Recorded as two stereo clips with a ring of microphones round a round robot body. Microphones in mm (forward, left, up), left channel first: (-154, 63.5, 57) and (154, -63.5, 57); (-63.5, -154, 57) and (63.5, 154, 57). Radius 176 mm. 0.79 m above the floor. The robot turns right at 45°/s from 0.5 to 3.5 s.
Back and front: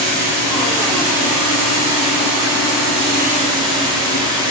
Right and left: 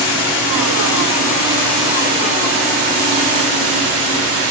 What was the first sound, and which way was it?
Running water, 80° right.